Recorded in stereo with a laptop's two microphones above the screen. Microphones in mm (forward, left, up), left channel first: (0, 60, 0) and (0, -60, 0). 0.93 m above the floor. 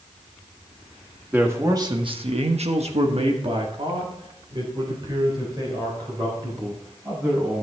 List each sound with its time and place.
1.3 s a man speaking: 20° right (ahead or behind), 1.7 m; by 7.6 s 30° right (ahead or behind), 7 m